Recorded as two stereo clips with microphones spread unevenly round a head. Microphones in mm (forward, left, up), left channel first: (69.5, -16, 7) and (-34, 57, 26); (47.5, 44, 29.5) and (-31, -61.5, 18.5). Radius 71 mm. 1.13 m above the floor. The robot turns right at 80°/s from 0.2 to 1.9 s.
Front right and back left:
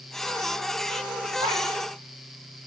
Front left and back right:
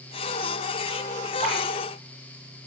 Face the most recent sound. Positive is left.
turn(degrees=-135)